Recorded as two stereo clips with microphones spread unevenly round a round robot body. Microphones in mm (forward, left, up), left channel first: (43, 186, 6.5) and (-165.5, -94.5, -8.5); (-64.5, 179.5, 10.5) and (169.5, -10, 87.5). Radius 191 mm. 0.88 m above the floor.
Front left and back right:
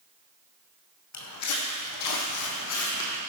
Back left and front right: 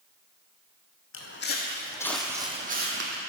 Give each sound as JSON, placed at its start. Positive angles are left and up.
{"t": 1.1, "sound": "footsteps", "azimuth_deg": 90, "distance_m": 2.0}